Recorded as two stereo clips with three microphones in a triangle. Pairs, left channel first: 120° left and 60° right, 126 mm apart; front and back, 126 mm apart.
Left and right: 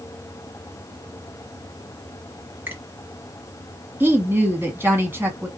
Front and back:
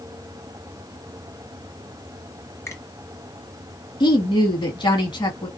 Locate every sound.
2.7 s a finger snap: 15° right, 1.3 m
4.0 s a woman speaking: straight ahead, 1.4 m